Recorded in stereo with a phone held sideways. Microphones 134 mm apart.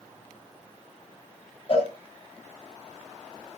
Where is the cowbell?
45° left (ahead or behind), 4 m.